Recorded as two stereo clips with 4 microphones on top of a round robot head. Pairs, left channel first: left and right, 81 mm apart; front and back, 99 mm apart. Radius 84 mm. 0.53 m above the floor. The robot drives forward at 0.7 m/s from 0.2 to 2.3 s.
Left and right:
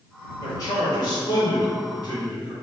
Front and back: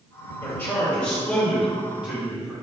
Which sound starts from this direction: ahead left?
A man speaking, at 0.4 s.